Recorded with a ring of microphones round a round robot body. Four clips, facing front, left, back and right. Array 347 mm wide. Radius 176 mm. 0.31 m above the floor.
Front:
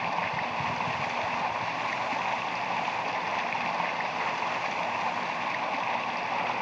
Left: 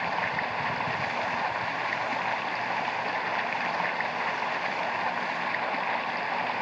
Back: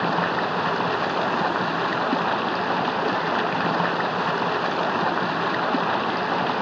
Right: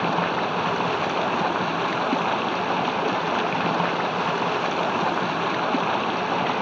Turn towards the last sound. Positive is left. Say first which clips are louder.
# right 7 dB, back 7 dB
turn(degrees=-140)